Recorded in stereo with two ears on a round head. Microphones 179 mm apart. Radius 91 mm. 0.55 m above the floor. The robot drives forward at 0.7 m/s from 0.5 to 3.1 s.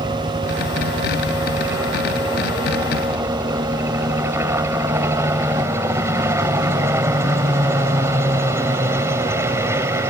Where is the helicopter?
15° right (ahead or behind).